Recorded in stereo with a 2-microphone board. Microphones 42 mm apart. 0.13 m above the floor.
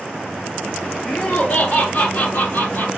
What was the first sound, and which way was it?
Laughter, 35° left (ahead or behind).